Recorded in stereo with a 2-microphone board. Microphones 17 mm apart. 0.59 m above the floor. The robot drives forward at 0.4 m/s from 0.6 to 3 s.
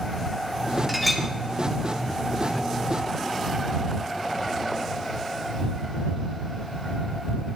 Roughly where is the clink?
Centre.